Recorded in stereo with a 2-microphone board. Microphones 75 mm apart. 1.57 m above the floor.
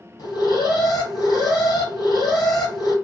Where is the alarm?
60° left (ahead or behind), 1.7 m.